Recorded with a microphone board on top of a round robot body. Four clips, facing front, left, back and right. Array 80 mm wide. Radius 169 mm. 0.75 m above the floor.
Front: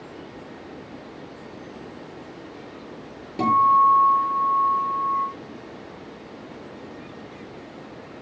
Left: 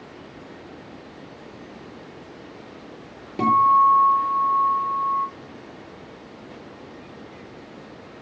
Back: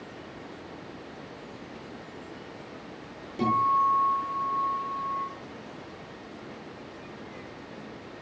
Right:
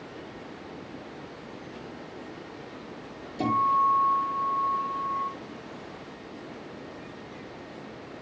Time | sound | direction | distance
3.4 | a guitar | 70° left | 4 m